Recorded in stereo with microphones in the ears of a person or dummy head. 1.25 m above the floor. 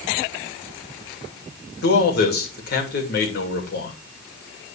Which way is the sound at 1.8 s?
60° left (ahead or behind).